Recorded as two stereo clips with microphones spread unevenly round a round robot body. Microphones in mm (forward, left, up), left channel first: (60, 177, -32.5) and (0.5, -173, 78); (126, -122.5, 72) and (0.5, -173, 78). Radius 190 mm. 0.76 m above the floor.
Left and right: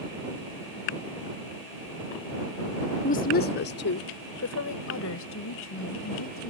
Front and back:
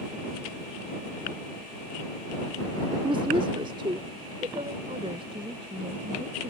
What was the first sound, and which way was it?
A woman speaking, 140° left.